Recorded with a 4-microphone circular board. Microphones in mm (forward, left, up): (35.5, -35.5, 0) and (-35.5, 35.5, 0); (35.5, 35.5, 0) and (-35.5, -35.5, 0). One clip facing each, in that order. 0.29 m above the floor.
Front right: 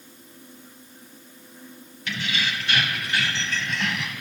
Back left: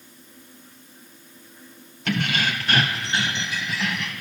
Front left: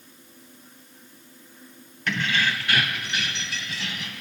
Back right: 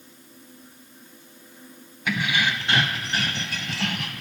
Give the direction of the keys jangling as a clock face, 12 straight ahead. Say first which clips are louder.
Back left 5 dB, back right 1 dB; 7 o'clock.